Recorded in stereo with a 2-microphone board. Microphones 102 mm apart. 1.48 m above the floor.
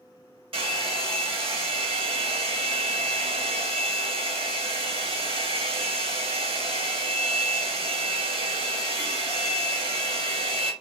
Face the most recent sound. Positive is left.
turn(degrees=-65)  # may be behind; listen again after turning